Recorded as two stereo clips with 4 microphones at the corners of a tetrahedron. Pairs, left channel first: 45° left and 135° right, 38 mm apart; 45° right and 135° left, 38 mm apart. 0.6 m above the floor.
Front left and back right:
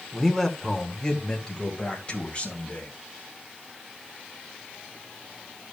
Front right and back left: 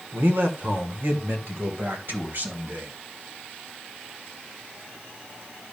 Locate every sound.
0.1 s a man speaking: 130° left, 1.7 m; by 2.9 s 100° left, 3.5 m